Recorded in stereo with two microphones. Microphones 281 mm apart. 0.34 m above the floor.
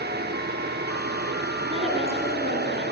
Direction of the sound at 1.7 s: 20° right (ahead or behind).